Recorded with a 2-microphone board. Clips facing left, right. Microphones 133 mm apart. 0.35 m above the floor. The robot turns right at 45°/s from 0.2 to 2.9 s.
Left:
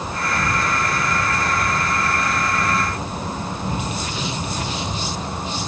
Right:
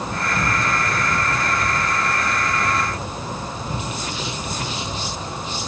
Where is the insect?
55° right, 8.5 m; by 5.7 s 65° left, 8.5 m.